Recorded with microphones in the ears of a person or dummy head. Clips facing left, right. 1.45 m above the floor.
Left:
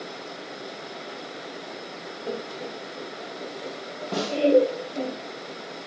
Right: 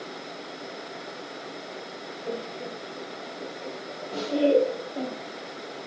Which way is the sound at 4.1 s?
80° left.